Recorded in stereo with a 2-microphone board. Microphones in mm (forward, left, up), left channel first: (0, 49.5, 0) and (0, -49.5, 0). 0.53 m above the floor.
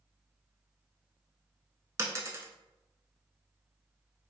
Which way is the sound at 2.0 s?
30° right (ahead or behind).